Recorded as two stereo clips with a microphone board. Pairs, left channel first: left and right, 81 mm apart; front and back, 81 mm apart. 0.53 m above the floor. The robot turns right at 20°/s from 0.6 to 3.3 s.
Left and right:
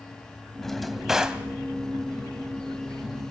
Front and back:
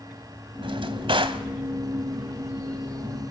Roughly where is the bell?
I don't hear a bell.